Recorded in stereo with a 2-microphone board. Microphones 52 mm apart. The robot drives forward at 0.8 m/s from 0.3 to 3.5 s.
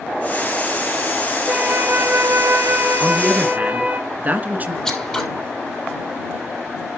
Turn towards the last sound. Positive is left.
turn(degrees=10)  # may be behind; listen again after turning